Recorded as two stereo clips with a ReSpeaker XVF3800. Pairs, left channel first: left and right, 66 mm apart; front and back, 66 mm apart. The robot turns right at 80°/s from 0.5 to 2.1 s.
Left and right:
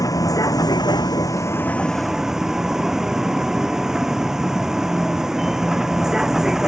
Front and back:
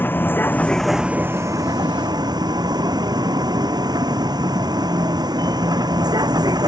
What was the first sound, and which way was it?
A vehicle, 60° left.